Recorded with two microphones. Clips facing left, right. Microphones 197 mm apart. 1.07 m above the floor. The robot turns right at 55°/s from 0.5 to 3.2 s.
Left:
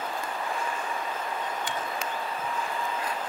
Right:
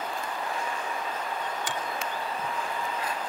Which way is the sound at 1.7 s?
75° right (ahead or behind).